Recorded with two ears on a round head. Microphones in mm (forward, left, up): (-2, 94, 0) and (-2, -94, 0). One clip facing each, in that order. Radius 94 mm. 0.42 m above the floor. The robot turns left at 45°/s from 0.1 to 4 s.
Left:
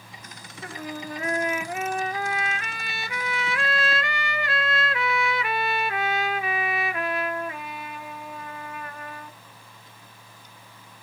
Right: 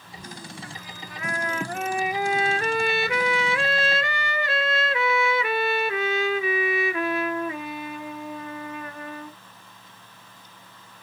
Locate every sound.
0.6 s a trumpet: 55° left; by 9.4 s 95° right